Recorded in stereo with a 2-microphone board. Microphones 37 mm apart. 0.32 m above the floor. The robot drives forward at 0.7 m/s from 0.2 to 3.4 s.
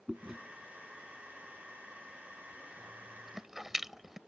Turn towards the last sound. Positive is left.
turn(degrees=-10)  # may be behind; listen again after turning